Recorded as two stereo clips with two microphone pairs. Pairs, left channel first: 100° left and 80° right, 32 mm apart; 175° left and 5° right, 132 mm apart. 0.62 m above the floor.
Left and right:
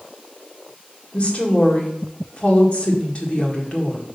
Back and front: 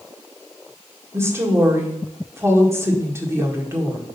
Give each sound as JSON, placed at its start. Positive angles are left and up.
{"t": 1.1, "sound": "a woman speaking", "azimuth_deg": 60, "distance_m": 1.7}